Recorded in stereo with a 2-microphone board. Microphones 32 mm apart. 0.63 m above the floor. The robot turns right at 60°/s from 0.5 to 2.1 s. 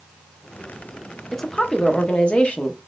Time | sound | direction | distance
1.3 | a woman speaking | 10° left | 0.7 m